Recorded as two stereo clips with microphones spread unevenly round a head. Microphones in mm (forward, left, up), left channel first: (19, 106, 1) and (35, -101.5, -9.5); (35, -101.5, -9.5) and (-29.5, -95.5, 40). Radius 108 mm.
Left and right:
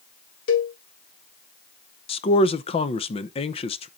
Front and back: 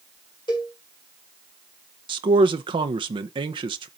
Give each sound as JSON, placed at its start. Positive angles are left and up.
{"t": 0.5, "sound": "a cowbell", "azimuth_deg": 75, "distance_m": 1.5}
{"t": 2.1, "sound": "a man speaking", "azimuth_deg": 145, "distance_m": 0.6}